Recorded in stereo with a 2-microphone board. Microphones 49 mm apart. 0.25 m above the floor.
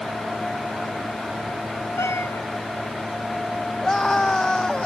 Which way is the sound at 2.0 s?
65° left (ahead or behind).